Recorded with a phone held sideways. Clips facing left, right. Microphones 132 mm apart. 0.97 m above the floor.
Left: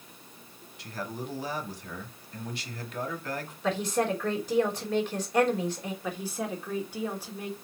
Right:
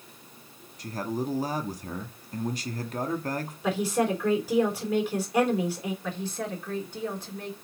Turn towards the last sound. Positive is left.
turn(degrees=10)  # may be behind; listen again after turning